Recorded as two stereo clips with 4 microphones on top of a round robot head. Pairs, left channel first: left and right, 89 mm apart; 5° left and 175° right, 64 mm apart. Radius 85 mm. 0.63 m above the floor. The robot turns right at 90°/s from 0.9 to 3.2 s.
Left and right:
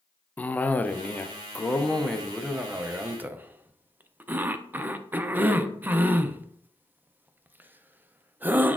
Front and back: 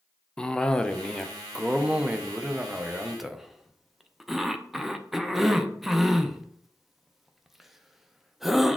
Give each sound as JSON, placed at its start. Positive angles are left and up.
{"t": 0.4, "sound": "a cough", "azimuth_deg": 60, "distance_m": 0.5}